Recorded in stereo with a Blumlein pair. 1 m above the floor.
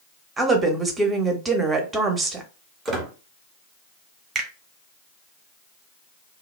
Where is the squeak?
20° right, 0.9 m.